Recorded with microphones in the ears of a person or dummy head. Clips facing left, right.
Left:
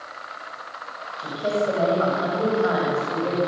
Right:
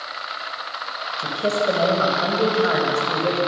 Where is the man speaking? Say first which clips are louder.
Right 1 dB; 40° right (ahead or behind), 7 m.